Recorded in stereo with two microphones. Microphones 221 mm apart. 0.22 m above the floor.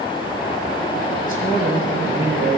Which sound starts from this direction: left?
A man speaking, at 1.3 s.